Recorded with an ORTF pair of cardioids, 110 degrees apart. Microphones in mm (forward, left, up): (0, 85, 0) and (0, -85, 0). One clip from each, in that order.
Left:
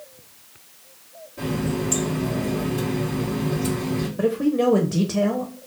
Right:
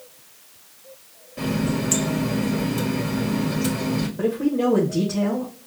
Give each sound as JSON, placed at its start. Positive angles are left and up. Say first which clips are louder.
{"t": 1.4, "sound": "a running tap", "louder": "right 1 dB", "azimuth_deg": -50, "distance_m": 1.6}
{"t": 4.2, "sound": "a man speaking", "louder": "left 2 dB", "azimuth_deg": 10, "distance_m": 0.8}